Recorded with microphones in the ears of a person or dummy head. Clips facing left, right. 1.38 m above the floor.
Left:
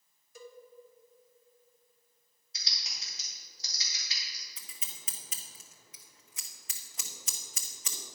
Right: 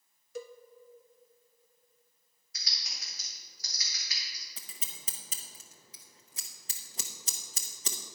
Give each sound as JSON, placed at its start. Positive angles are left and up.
{"t": 0.3, "sound": "a cowbell", "side_deg": -50, "distance_m": 0.7}
{"t": 2.5, "sound": "typing on a keyboard", "side_deg": 30, "distance_m": 2.5}
{"t": 4.6, "sound": "scissors", "side_deg": -35, "distance_m": 0.8}